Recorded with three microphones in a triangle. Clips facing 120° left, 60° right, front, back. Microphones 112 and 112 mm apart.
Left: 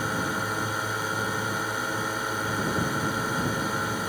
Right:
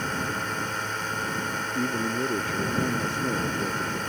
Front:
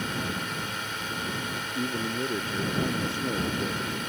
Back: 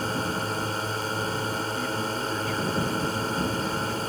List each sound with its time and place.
0.0 s a drone: 165° right
1.8 s a man speaking: 60° right